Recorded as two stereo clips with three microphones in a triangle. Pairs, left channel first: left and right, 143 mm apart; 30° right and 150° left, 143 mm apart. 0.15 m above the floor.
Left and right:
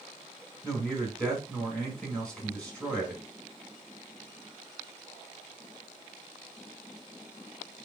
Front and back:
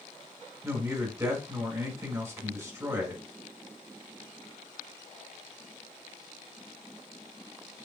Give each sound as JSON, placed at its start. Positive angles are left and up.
{"t": 0.6, "sound": "a man speaking", "azimuth_deg": 160, "distance_m": 1.5}